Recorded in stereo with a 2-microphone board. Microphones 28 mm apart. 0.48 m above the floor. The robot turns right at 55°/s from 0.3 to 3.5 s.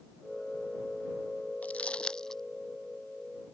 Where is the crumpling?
55° left (ahead or behind); by 2.4 s 10° left (ahead or behind).